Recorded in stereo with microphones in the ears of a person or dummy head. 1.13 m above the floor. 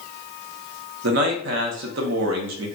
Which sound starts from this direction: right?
A man speaking, at 1.0 s.